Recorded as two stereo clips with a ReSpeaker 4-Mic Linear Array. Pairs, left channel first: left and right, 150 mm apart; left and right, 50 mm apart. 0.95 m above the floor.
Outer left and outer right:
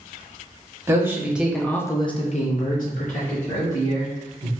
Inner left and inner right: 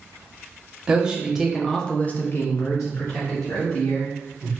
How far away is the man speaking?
About 1.0 m.